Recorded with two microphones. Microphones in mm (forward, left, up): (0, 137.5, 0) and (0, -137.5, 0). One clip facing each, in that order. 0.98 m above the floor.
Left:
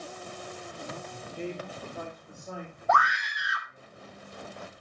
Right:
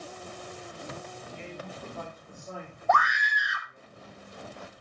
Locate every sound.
1.1 s a man speaking: 55° left (ahead or behind), 1.0 m; by 3.9 s centre (ahead or behind), 4 m
2.9 s a scream: centre (ahead or behind), 1.0 m